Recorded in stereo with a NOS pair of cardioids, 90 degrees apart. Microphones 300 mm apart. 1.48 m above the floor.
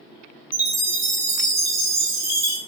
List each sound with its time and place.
0.5 s a chime: 65° right, 1.0 m